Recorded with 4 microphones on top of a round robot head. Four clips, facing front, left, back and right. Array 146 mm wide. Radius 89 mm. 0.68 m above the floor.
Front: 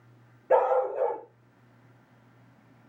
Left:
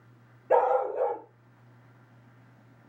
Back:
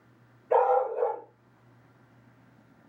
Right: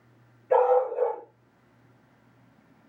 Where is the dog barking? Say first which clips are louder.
Right 2 dB, even; 30° left, 6 m.